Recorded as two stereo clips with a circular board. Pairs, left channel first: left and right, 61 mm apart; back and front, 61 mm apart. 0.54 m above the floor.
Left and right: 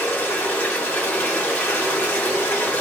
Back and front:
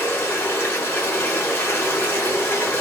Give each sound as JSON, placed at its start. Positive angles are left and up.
{"t": 0.0, "sound": "running water", "azimuth_deg": 140, "distance_m": 0.9}